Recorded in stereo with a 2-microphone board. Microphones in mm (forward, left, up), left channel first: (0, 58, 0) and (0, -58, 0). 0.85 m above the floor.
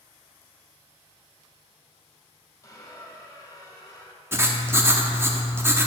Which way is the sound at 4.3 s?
20° right (ahead or behind).